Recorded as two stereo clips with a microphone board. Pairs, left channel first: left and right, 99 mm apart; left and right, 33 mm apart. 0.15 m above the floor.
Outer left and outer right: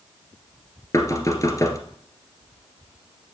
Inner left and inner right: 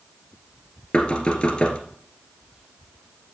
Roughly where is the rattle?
No rattle in this recording.